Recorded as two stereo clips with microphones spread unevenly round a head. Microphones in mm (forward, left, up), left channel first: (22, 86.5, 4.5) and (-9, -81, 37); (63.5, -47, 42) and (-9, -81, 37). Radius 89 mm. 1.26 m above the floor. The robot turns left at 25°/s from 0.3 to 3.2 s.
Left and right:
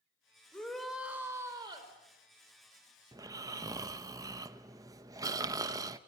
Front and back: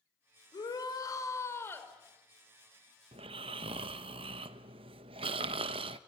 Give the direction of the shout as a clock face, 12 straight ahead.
12 o'clock.